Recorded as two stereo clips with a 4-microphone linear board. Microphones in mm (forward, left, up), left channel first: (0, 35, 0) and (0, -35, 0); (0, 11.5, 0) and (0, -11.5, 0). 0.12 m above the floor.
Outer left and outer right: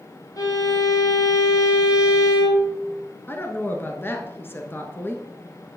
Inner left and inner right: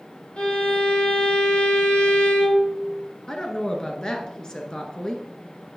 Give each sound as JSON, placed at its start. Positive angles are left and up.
{"t": 0.4, "sound": "a violin", "side_deg": 55, "distance_m": 3.0}
{"t": 3.3, "sound": "a woman speaking", "side_deg": 30, "distance_m": 1.3}